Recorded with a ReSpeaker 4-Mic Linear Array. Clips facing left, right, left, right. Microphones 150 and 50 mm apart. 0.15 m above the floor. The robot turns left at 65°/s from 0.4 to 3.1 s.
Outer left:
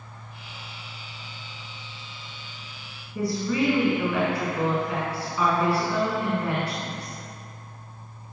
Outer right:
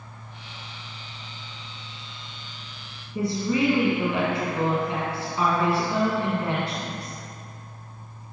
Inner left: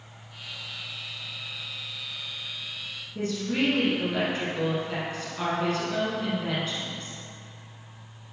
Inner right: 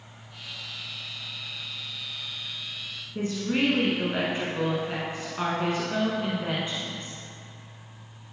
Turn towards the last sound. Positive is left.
turn(degrees=-25)  # may be behind; listen again after turning